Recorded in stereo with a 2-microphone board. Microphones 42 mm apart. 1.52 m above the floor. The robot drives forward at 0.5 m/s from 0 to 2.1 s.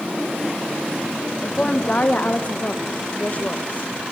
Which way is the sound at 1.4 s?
30° left (ahead or behind).